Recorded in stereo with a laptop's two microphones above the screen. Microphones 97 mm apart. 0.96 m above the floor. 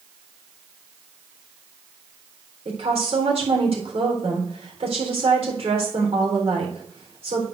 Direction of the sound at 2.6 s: 80° right.